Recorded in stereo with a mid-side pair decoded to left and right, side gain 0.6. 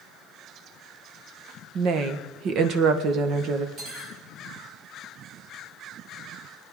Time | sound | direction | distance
1.8 | a woman speaking | 55° right | 1.6 m
3.8 | cutlery clinking | 55° right | 5.5 m